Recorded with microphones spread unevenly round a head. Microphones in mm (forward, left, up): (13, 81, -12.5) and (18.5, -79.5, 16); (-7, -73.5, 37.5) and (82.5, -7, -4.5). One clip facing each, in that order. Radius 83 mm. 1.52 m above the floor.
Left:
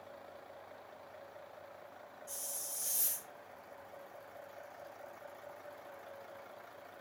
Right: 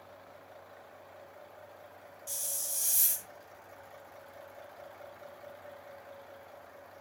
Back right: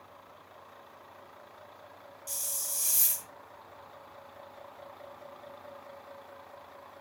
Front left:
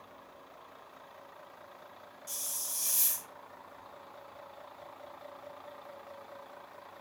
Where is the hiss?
100° right, 0.7 m.